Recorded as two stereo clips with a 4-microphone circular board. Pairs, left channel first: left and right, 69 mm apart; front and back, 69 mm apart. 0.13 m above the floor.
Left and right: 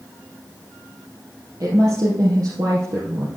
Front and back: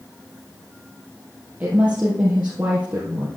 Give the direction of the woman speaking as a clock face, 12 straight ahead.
4 o'clock.